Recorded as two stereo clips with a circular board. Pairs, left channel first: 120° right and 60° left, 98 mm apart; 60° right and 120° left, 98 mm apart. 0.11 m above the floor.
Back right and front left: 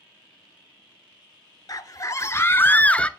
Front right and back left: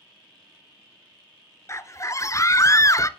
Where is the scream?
105° right, 1.4 m; by 3.1 s 50° right, 1.2 m.